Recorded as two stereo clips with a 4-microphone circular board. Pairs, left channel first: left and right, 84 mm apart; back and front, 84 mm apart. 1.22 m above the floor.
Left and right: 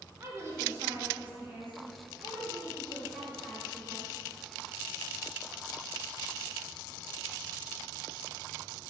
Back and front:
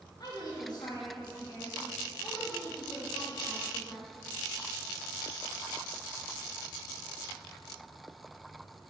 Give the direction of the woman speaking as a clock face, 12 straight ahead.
5 o'clock.